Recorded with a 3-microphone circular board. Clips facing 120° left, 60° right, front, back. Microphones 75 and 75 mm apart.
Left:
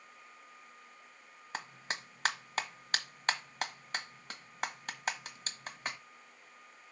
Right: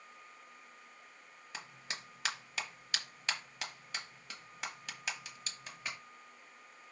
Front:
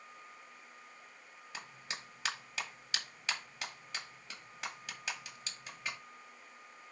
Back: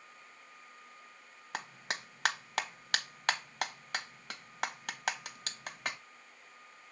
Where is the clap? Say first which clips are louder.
Left 6 dB, back 7 dB; 165° left, 1.2 m.